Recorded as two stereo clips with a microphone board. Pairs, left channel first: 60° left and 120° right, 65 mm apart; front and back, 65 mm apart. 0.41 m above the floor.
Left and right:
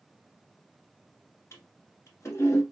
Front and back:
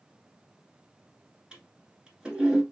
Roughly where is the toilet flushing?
Left.